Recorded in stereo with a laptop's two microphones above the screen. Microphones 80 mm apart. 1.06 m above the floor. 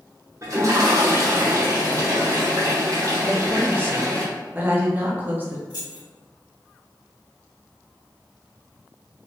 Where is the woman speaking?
20° right (ahead or behind), 0.6 m.